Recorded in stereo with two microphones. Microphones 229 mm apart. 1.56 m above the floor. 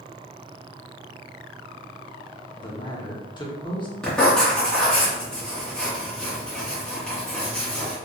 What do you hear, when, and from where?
2.6 s a man speaking: 20° left (ahead or behind), 1.0 m
4.0 s writing: 5° left (ahead or behind), 1.3 m